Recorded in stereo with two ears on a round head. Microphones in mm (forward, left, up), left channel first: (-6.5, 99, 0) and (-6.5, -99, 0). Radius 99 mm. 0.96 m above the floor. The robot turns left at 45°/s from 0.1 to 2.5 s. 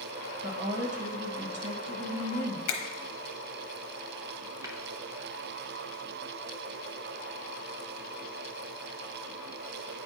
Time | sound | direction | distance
0.4 | a woman speaking | 25° right | 1.4 m
2.7 | a finger snap | 80° left | 0.9 m
4.6 | tapping | 15° right (ahead or behind) | 0.7 m